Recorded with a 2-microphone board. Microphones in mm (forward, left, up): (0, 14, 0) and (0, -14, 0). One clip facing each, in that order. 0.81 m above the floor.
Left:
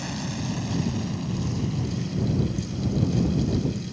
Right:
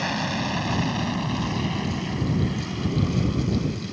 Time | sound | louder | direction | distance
0.0 | an aircraft | right 6 dB | 35° right (ahead or behind) | ?